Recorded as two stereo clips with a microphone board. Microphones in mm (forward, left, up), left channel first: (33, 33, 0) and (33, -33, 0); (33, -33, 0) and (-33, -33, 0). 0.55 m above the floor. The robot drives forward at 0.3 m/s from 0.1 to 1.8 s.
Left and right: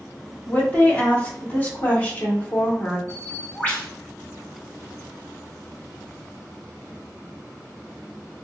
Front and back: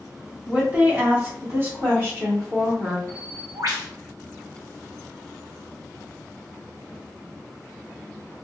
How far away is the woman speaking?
About 1.4 m.